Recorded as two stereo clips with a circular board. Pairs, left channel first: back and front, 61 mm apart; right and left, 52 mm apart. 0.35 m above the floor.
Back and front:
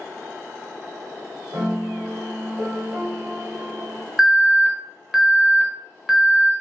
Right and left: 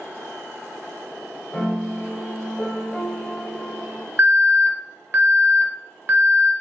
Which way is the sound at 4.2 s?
85° left.